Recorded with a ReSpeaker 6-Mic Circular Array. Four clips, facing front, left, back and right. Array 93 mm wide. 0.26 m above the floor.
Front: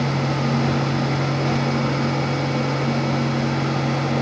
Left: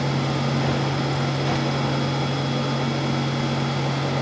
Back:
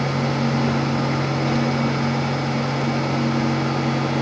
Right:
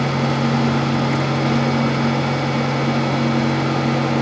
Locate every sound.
Only background noise.